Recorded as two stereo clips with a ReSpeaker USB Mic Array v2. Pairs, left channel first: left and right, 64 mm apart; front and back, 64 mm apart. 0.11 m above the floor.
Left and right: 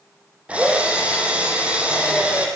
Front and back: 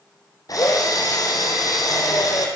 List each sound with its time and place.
0.5 s a drill: 20° right, 4.5 m